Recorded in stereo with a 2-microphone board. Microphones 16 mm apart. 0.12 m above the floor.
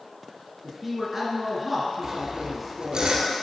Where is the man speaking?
5° right (ahead or behind), 2.0 m.